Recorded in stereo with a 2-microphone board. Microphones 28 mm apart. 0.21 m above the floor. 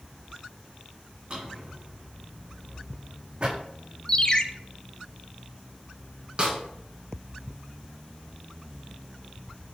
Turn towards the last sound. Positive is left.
turn(degrees=-35)  # may be behind; listen again after turning